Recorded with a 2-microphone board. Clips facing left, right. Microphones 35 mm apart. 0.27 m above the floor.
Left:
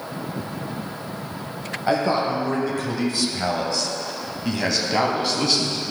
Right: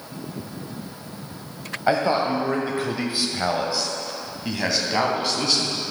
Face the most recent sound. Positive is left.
turn(degrees=5)  # may be behind; listen again after turning